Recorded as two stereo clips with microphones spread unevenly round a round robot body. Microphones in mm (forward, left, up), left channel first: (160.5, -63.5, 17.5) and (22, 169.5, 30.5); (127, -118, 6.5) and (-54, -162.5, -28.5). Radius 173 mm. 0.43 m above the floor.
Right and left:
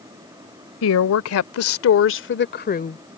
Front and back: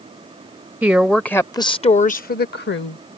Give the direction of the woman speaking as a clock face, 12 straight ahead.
3 o'clock.